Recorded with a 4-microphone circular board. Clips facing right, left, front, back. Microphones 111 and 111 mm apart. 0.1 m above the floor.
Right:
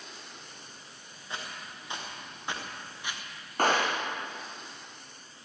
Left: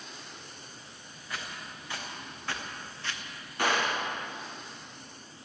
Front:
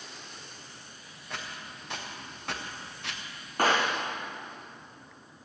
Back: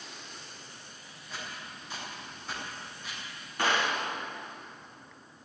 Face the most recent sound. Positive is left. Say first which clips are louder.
# right 2 dB, front 3 dB
turn(degrees=-45)